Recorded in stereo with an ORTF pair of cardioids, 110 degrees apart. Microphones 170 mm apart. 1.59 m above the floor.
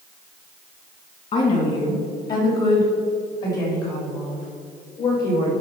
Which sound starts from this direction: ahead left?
A woman speaking, at 1.3 s.